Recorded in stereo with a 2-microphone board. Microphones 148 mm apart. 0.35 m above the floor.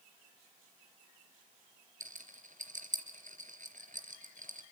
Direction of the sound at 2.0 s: 60° right (ahead or behind).